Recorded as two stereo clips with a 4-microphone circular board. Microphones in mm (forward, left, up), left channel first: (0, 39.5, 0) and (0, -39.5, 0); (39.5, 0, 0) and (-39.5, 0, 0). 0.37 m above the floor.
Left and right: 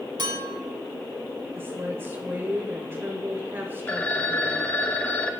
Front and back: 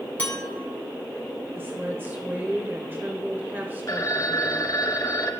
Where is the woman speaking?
130° right, 1.2 m.